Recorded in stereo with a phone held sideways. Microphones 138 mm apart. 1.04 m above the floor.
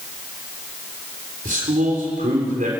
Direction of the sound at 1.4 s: 75° right (ahead or behind).